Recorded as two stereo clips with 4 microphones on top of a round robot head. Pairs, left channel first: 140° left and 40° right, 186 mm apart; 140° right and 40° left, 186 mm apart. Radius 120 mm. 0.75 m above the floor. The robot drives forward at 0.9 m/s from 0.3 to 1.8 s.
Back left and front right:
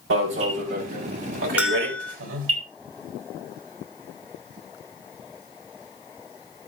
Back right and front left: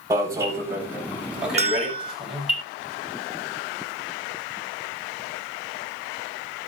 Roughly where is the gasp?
I don't hear a gasp.